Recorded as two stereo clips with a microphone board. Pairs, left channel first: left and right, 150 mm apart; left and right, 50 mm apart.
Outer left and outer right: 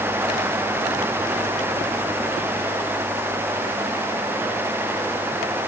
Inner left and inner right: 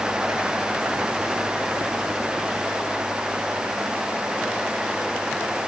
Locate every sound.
Only background noise.